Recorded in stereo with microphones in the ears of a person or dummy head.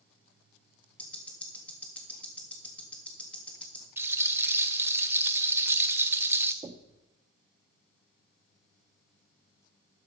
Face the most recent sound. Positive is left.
turn(degrees=-25)  # may be behind; listen again after turning